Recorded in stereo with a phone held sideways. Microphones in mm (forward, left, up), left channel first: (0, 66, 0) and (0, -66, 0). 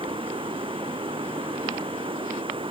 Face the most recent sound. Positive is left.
turn(degrees=-40)  # may be behind; listen again after turning